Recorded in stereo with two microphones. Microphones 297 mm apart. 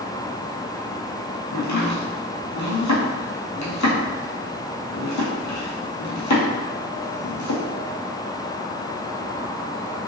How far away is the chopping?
About 1.1 m.